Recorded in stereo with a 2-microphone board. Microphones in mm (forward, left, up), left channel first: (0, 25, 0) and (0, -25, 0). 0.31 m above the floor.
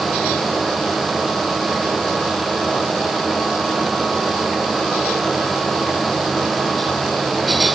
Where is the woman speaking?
I don't hear a woman speaking.